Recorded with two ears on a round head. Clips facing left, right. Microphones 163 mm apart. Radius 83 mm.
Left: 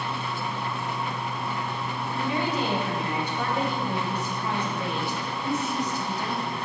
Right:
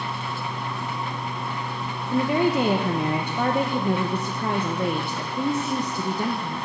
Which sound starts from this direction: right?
A woman speaking, at 2.1 s.